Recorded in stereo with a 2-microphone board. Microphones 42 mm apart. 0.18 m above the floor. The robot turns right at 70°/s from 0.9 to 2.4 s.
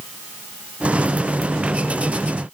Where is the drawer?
No drawer in this recording.